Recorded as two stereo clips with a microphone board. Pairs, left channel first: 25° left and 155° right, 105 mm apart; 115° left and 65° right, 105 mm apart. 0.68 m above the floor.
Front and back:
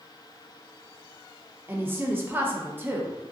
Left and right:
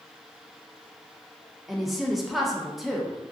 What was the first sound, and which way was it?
A woman speaking, 155° right.